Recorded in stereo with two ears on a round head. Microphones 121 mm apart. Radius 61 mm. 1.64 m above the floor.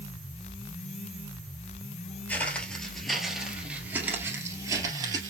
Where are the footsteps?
15° left (ahead or behind), 1.9 m; by 5.3 s 35° right (ahead or behind), 2.0 m.